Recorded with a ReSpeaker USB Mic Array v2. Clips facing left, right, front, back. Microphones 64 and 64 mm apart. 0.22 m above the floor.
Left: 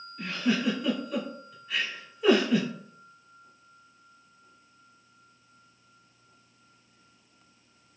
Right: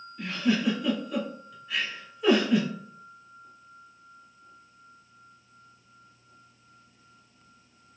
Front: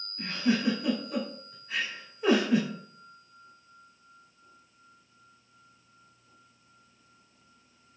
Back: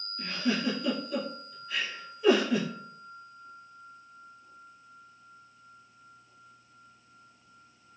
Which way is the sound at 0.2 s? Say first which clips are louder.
Right 1 dB, front 2 dB; 5° left.